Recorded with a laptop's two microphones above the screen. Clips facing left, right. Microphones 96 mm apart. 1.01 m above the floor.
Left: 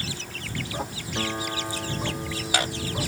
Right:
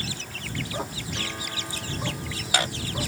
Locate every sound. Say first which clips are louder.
1.1 s a guitar: left 8 dB; 30° left (ahead or behind)